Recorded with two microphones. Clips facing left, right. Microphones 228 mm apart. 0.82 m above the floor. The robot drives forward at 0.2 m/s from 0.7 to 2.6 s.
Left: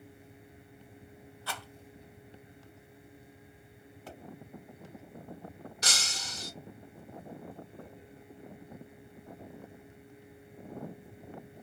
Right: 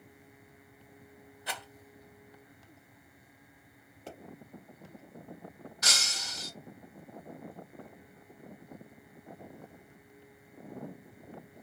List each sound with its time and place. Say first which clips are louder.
1.5 s a rattle: even; 20° right (ahead or behind), 0.6 m
4.1 s a pop: right 2 dB; 25° right (ahead or behind), 1.0 m
5.8 s breaking glass: left 1 dB; 30° left (ahead or behind), 1.1 m